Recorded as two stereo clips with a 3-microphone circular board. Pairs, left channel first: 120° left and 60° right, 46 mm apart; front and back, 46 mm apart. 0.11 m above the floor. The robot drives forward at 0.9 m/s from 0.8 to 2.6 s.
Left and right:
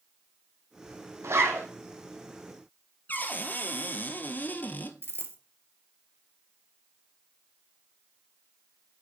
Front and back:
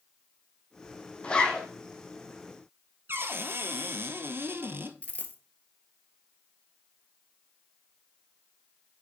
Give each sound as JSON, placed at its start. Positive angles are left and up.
{"t": 1.2, "sound": "a zipper", "azimuth_deg": -65, "distance_m": 2.0}
{"t": 3.1, "sound": "a cupboard door", "azimuth_deg": 160, "distance_m": 1.0}
{"t": 5.0, "sound": "a dropped coin", "azimuth_deg": -45, "distance_m": 1.1}